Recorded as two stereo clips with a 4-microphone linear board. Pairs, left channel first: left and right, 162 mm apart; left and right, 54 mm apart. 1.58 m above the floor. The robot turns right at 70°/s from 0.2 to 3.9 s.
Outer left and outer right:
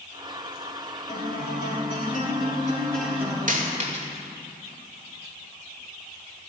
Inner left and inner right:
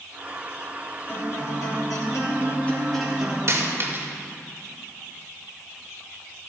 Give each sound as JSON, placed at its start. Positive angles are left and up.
{"t": 1.1, "sound": "a guitar", "azimuth_deg": 45, "distance_m": 3.5}
{"t": 3.5, "sound": "a dropped coin", "side_deg": -55, "distance_m": 1.9}